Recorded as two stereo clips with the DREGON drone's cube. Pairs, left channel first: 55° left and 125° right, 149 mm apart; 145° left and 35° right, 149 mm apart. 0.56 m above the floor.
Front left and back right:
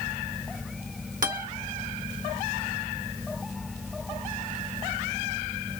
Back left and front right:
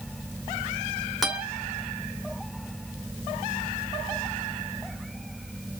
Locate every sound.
1.2 s a guitar: 125° right, 1.2 m